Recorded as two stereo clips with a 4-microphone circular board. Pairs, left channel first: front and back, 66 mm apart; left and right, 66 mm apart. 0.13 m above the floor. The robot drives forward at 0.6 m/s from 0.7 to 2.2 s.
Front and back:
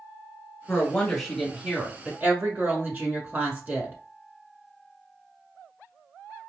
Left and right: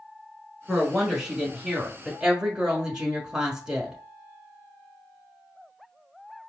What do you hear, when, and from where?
0.7 s a woman speaking: 20° right, 1.1 m; by 4.0 s 160° right, 1.1 m